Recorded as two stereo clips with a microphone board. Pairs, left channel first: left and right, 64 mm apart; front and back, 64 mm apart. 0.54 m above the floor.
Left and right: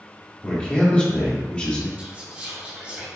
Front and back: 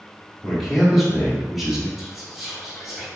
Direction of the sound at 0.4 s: 100° left.